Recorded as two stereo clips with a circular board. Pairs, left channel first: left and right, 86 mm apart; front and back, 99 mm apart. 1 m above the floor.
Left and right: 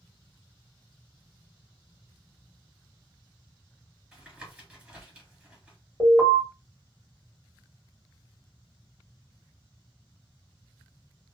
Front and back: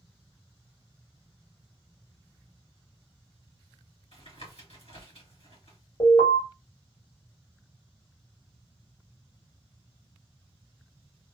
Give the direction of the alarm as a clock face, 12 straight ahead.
11 o'clock.